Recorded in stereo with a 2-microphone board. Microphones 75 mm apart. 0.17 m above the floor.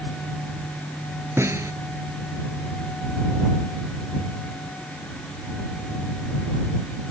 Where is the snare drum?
35° right (ahead or behind).